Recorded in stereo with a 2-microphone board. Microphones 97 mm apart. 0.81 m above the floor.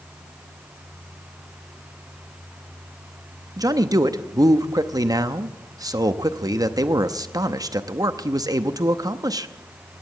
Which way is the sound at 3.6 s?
40° right (ahead or behind).